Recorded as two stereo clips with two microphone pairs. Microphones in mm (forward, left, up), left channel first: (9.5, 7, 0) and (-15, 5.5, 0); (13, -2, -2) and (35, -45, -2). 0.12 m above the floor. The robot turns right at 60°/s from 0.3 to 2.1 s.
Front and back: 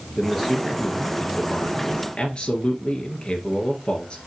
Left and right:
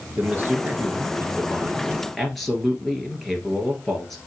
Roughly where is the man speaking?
Right.